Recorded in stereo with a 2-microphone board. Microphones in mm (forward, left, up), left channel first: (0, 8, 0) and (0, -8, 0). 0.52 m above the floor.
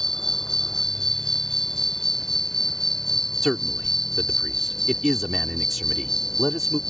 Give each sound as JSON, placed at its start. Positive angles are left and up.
{"t": 0.0, "sound": "an insect", "side_deg": 35}
{"t": 3.4, "sound": "a man speaking", "side_deg": 0}